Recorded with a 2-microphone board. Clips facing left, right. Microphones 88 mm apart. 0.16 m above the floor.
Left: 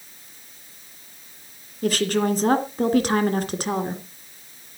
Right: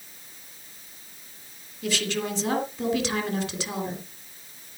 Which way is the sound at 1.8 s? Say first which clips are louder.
Left 7 dB; 45° left (ahead or behind).